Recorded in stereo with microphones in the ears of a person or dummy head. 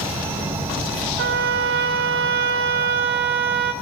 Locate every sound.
0.0 s an insect: 10° right (ahead or behind), 1.5 m
1.2 s a trumpet: 60° right (ahead or behind), 0.8 m